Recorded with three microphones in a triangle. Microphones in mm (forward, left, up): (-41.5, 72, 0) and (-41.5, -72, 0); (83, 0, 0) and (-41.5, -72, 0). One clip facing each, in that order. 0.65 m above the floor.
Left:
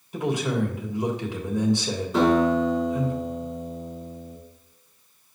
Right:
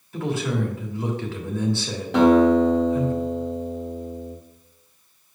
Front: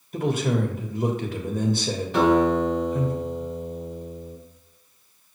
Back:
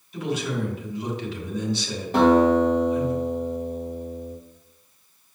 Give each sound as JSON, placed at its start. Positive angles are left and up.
{"t": 0.1, "sound": "a man speaking", "azimuth_deg": 20, "distance_m": 1.3}
{"t": 2.1, "sound": "a guitar", "azimuth_deg": -105, "distance_m": 3.5}